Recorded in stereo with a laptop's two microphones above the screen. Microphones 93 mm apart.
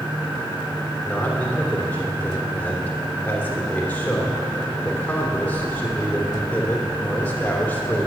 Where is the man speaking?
20° left (ahead or behind), 3 m.